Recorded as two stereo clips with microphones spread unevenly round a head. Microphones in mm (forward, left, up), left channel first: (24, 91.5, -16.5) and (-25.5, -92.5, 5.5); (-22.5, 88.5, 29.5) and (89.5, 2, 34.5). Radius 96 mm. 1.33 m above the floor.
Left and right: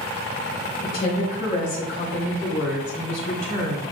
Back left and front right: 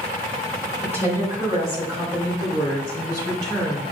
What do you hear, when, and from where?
0.8 s a woman speaking: 35° left, 2 m; by 3.8 s 20° left, 5 m